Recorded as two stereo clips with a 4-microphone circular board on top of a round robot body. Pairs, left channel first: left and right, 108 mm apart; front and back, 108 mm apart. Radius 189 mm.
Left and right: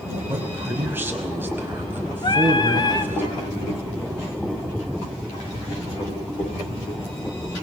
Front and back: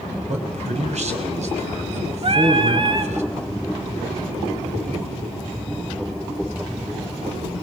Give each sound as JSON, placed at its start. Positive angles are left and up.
{"t": 0.3, "sound": "a man speaking", "azimuth_deg": -160, "distance_m": 5.5}
{"t": 2.2, "sound": "singing", "azimuth_deg": 140, "distance_m": 2.0}